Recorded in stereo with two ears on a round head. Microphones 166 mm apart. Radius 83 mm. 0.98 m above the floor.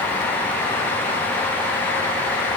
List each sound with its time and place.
Only background noise.